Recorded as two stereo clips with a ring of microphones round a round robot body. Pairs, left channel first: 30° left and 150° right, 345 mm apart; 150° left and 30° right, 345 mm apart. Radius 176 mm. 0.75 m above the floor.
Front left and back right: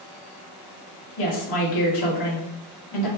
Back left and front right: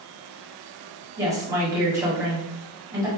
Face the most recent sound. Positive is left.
turn(degrees=50)